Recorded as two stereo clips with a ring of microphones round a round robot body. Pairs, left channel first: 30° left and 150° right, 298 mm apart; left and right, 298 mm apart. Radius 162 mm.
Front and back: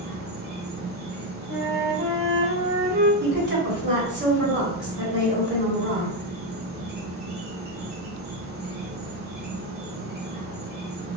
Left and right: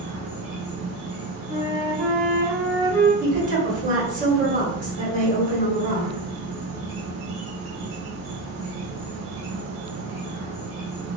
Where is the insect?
105° right, 0.9 m.